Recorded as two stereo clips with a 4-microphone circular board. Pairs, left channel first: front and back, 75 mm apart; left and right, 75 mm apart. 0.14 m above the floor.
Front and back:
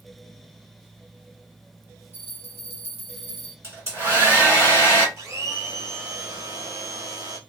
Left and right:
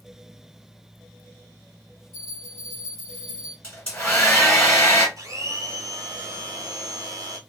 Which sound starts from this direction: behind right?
A blender, at 5.2 s.